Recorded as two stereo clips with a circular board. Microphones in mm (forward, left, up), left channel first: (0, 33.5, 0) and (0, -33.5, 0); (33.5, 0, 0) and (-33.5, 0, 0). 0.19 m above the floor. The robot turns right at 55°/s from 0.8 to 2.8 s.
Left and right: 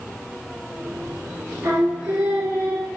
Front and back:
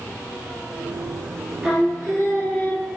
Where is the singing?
110° right, 1.4 m; by 2.9 s 45° right, 1.4 m.